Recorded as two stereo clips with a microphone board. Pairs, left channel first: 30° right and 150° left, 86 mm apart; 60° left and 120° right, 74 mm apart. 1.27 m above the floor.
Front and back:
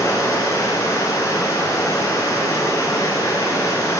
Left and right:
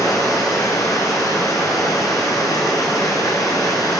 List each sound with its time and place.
0.0 s running water: 20° left, 8.5 m